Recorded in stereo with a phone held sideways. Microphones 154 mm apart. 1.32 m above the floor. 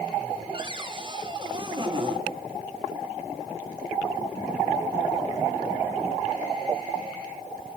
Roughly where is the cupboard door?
Right.